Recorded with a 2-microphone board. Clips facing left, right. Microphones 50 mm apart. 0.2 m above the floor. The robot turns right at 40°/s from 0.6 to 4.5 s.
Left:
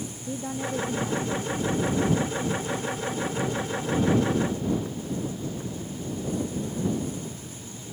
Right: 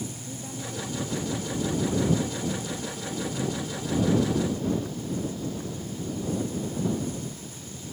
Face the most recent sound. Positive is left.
turn(degrees=-170)